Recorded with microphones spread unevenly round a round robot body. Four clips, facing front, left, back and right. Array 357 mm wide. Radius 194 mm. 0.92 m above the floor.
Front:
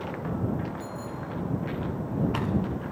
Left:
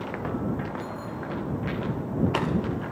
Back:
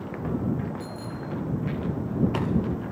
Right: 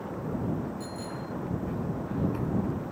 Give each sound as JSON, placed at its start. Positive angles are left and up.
{"t": 0.8, "sound": "a bicycle bell", "azimuth_deg": -175}